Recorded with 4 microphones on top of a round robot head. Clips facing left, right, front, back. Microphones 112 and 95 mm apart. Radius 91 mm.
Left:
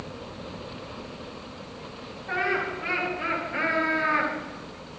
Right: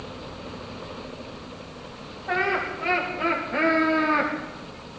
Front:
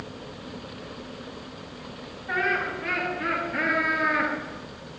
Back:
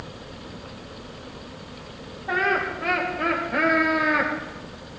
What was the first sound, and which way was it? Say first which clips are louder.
Laughter: right 2 dB, back 3 dB; 140° right.